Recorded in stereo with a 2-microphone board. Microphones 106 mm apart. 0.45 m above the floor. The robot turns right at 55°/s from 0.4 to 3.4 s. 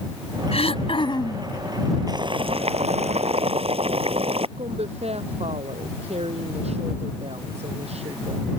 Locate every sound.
0.5 s throat clearing: 95° left; by 1.5 s 145° left
2.1 s boiling: 140° right; by 4.5 s 70° right
4.6 s a woman speaking: 80° right